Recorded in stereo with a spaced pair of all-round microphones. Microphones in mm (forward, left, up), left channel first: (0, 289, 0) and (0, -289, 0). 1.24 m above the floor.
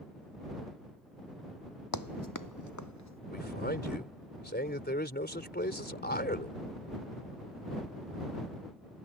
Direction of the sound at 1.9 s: 35° left (ahead or behind).